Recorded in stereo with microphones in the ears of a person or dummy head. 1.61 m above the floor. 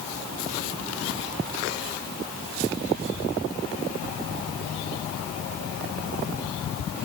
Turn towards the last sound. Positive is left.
No sound to turn to.